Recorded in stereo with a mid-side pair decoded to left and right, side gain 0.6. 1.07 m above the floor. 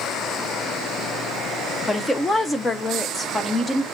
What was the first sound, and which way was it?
A woman speaking, 15° left.